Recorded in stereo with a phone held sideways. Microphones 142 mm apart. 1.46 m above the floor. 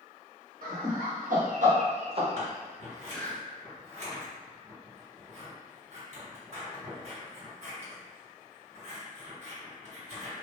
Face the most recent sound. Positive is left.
turn(degrees=-50)  # may be behind; listen again after turning